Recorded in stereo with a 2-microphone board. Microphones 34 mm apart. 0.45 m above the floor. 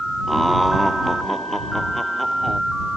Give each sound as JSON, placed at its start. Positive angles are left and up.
{"t": 0.3, "sound": "laughter", "side_deg": 5}